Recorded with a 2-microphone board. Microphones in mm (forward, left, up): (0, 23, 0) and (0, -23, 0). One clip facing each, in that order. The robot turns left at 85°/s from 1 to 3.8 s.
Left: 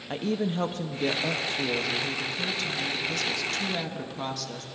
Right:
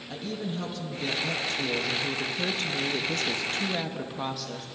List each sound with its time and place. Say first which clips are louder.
0.1 s a woman speaking: left 6 dB; 70° left, 0.8 m; by 4.7 s 170° right, 0.8 m